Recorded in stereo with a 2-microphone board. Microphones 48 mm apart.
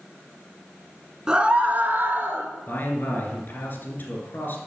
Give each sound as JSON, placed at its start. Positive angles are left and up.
{"t": 1.3, "sound": "a scream", "side_deg": -15, "distance_m": 1.1}
{"t": 2.7, "sound": "a man speaking", "side_deg": 45, "distance_m": 2.0}